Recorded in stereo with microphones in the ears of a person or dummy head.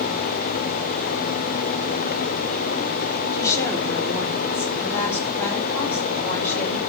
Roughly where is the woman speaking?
Centre.